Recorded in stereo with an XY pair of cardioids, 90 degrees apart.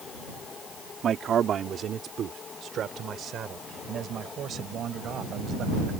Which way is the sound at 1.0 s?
60° right.